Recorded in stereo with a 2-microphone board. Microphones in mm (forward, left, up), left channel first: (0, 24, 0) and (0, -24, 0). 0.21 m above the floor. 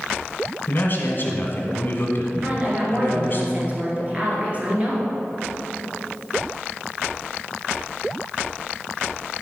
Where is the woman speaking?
30° right (ahead or behind), 2.5 m.